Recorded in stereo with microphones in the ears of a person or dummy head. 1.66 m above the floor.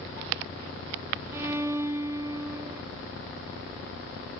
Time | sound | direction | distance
1.3 | a violin | 15° right (ahead or behind) | 0.9 m